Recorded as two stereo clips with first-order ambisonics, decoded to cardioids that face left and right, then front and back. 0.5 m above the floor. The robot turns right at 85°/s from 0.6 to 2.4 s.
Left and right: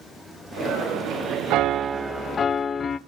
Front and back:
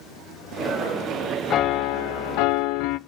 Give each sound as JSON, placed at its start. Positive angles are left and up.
{"t": 1.5, "sound": "a piano", "azimuth_deg": -55, "distance_m": 0.5}